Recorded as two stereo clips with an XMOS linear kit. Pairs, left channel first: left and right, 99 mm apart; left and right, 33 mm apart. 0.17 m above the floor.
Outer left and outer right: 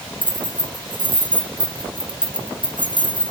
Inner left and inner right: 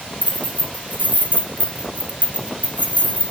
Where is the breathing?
I don't hear breathing.